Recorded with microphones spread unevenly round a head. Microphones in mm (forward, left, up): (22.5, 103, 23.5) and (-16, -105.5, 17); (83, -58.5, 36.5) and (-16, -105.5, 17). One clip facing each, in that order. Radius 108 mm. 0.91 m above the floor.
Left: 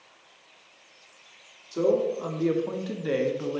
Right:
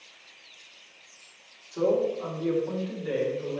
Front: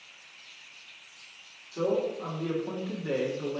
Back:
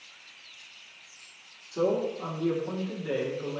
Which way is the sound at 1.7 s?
135° left.